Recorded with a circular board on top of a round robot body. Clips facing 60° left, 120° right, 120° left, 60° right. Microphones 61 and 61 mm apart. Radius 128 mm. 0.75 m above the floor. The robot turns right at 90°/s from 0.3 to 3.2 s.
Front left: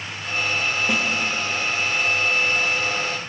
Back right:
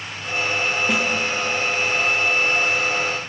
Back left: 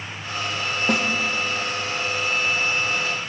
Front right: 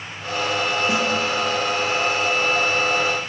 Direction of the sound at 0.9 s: 150° left.